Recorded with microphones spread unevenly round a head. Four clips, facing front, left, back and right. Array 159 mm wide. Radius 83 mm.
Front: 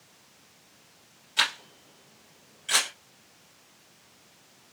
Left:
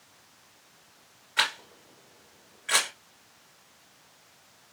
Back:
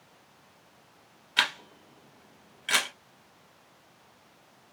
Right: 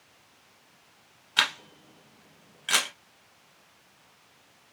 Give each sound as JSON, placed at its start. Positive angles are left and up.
{"t": 1.4, "sound": "a camera shutter", "azimuth_deg": -125, "distance_m": 1.7}